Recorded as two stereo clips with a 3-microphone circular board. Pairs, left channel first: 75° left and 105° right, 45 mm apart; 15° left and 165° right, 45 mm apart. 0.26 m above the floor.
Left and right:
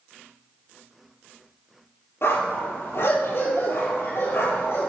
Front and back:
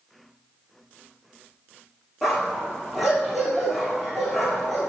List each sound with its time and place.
2.2 s a dog barking: 105° left, 3.5 m